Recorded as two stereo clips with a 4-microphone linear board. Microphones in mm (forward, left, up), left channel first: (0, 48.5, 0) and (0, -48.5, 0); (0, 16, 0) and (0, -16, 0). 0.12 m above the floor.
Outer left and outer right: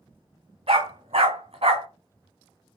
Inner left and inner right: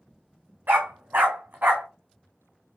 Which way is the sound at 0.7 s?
85° right.